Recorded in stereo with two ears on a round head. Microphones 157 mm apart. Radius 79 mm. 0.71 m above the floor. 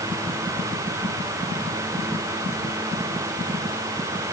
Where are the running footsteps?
I don't hear running footsteps.